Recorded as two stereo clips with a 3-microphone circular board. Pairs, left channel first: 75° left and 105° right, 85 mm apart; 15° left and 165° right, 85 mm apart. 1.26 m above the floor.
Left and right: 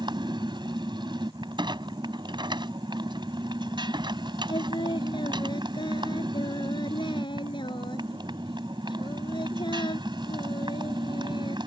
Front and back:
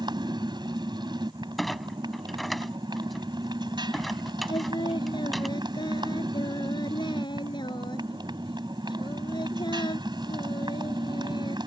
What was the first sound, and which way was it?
A motorcycle, 135° right.